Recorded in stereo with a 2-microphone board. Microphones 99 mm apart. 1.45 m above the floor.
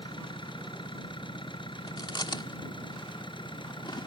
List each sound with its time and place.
0.0 s an engine running: 60° left (ahead or behind)
1.9 s chewing: 55° left (ahead or behind)